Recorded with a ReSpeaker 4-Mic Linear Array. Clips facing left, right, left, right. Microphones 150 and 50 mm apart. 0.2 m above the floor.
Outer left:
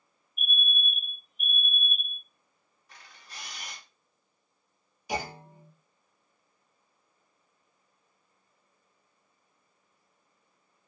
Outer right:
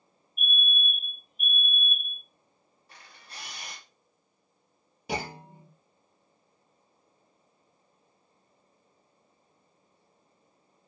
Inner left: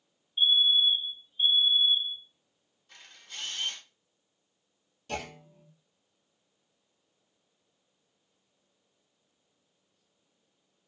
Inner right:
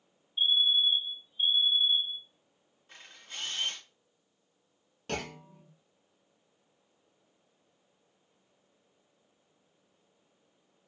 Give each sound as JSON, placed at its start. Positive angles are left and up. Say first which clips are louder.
{"t": 0.4, "sound": "a fire alarm", "louder": "outer right 1 dB, inner left 3 dB", "side_deg": 25, "distance_m": 2.0}
{"t": 2.9, "sound": "a camera shutter", "louder": "outer right 1 dB, inner right 1 dB", "side_deg": -30, "distance_m": 1.5}
{"t": 5.1, "sound": "a clunk", "louder": "even, even", "side_deg": -65, "distance_m": 0.7}